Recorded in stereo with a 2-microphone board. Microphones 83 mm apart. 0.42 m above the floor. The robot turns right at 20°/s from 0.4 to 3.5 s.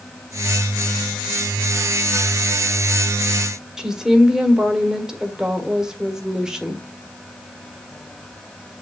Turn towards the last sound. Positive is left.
turn(degrees=-5)  # may be behind; listen again after turning